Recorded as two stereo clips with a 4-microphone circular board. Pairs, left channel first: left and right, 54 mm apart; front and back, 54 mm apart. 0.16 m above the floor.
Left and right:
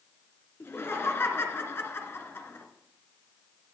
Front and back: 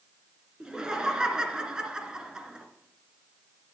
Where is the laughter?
105° left, 2.5 m.